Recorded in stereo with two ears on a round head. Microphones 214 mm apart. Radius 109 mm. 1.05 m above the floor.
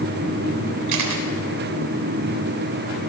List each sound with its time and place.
0.9 s a camera shutter: 90° right, 3.5 m